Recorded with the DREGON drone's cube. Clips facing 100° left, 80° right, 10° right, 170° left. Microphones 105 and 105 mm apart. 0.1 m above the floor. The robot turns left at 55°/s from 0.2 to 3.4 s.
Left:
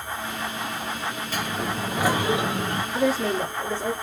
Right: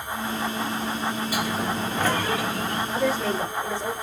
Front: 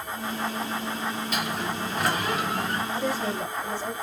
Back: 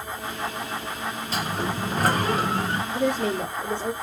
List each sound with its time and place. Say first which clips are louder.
1.3 s a sliding door: right 2 dB, back 2 dB; 150° right, 0.5 m; by 2.8 s 125° left, 0.5 m
2.9 s a woman speaking: left 2 dB, back 7 dB; 160° right, 4 m; by 3.9 s 175° left, 4 m